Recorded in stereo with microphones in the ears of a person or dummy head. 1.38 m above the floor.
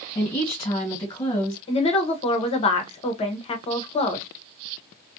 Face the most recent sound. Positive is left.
turn(degrees=35)  # may be behind; listen again after turning